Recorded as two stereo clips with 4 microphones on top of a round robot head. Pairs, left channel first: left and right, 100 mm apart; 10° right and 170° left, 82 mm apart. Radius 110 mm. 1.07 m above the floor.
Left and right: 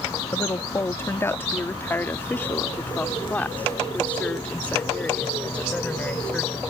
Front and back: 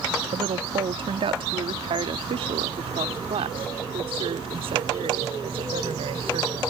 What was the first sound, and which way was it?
A woman speaking, 155° left.